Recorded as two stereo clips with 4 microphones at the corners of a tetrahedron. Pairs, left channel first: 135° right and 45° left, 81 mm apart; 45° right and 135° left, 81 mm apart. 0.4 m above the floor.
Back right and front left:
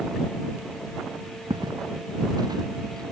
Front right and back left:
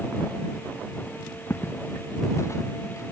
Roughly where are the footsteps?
Ahead.